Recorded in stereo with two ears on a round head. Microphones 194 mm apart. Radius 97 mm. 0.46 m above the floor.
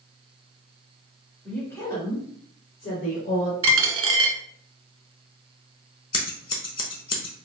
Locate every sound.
1.4 s a woman speaking: 5° left (ahead or behind), 1.3 m; by 3.5 s 45° left (ahead or behind), 2.0 m
3.6 s a dropped coin: 65° right (ahead or behind), 0.7 m
6.1 s scissors: 25° left (ahead or behind), 0.7 m